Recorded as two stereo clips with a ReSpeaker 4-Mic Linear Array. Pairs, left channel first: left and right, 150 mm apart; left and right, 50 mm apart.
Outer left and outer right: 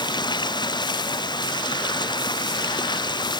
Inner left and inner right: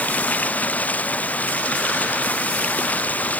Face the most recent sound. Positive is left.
turn(degrees=30)  # may be behind; listen again after turning